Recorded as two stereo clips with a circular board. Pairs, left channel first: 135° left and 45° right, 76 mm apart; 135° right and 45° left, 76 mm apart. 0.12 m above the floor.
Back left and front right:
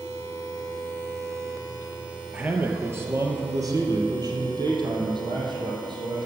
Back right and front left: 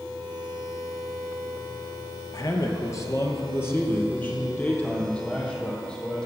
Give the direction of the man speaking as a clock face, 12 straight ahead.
4 o'clock.